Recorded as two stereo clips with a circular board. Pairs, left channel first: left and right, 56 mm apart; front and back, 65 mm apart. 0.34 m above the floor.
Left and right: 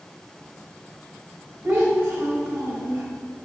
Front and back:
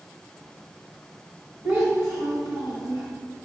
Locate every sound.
1.6 s a child speaking: 145° right, 1.2 m